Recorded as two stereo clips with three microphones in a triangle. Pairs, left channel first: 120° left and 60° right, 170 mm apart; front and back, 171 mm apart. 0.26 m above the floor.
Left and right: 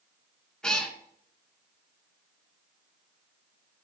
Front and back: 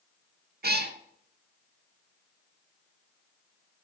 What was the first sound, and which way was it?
A cat meowing, 155° right.